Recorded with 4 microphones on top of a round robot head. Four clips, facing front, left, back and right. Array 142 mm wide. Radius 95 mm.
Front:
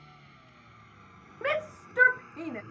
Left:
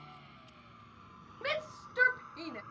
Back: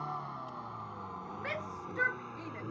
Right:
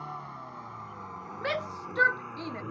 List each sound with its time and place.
0.0 s a vehicle: 145° right; by 2.7 s 120° right
1.4 s a shout: 25° right